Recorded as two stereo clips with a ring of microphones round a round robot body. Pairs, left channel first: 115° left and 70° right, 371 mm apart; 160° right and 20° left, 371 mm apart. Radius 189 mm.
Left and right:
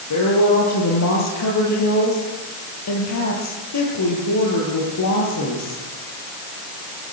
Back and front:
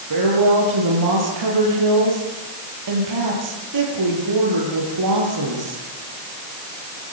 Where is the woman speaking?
65° left, 9 m.